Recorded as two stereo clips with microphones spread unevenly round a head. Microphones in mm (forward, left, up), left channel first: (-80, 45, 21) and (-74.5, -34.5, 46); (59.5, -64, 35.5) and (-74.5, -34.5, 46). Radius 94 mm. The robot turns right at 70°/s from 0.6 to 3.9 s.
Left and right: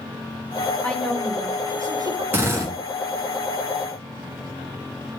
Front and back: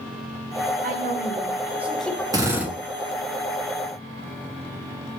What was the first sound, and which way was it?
A woman speaking, 175° left.